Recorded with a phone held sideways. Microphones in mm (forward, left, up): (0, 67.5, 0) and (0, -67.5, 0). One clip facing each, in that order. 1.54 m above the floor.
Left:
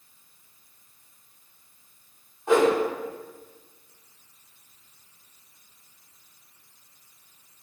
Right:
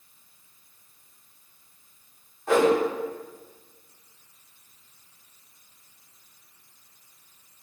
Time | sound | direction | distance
2.5 | a whoosh | 20° left (ahead or behind) | 2.0 m